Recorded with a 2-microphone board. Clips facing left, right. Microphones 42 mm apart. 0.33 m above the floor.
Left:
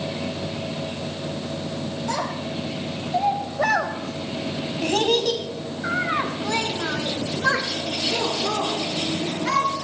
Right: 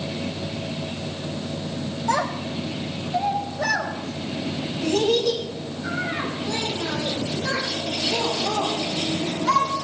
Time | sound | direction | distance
2.1 | a child speaking | 25° right (ahead or behind) | 1.2 m